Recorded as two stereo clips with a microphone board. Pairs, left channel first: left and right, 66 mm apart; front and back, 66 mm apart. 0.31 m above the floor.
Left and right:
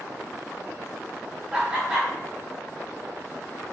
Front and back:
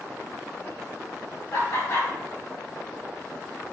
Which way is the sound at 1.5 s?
20° right.